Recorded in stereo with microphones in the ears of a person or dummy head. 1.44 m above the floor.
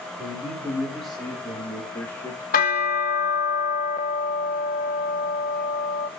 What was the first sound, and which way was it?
A man speaking, 5° right (ahead or behind).